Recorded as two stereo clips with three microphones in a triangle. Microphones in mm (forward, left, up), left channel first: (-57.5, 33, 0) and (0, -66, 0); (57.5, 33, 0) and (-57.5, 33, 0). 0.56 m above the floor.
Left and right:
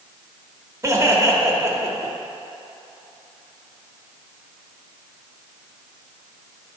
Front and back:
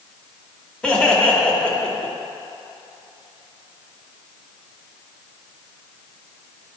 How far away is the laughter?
About 1.3 m.